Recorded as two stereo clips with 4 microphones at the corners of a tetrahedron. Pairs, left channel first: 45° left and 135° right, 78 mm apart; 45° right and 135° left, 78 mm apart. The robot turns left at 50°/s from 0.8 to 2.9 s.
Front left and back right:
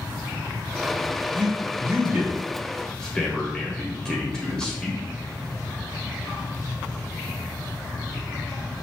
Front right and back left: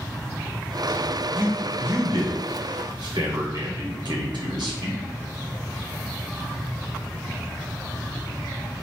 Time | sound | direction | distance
1.4 | a man speaking | 160° right | 1.0 m